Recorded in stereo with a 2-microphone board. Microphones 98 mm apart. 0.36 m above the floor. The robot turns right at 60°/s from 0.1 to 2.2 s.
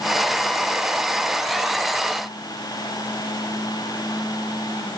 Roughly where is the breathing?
I don't hear breathing.